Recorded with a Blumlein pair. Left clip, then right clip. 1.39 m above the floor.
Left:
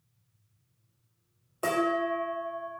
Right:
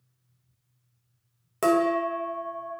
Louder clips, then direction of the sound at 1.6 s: Right 5 dB; 45° right.